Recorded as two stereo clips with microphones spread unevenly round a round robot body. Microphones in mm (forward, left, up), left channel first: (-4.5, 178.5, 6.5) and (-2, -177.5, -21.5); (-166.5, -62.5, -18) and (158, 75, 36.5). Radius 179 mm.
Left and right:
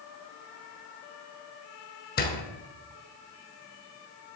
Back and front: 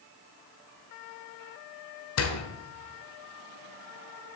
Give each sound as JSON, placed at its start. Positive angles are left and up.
{"t": 2.2, "sound": "a door slam", "azimuth_deg": 155, "distance_m": 1.4}